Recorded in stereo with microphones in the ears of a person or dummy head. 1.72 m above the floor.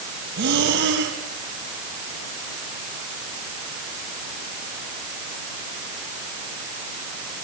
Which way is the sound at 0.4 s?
55° right (ahead or behind).